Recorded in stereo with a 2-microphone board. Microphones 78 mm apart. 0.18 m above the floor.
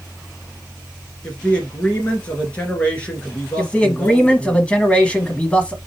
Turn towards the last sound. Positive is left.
turn(degrees=15)  # may be behind; listen again after turning